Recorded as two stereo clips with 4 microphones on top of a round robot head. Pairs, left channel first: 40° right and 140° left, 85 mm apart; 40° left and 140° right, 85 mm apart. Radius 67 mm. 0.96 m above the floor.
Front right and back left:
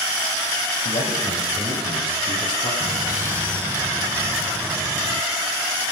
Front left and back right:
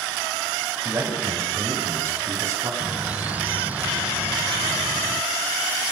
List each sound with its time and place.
0.8 s a man speaking: 75° right, 7 m; by 2.7 s 85° right, 8.5 m
2.8 s a bird: 170° left, 0.9 m